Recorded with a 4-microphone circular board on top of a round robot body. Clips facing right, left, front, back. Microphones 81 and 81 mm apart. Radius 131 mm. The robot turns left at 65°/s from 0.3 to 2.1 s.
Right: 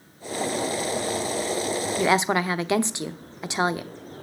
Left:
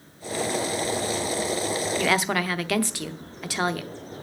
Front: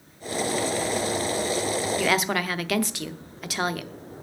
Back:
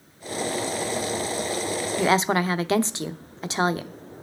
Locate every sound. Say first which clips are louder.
2.0 s a woman speaking: right 4 dB, back 6 dB; 135° right, 0.9 m; by 3.9 s 140° right, 0.9 m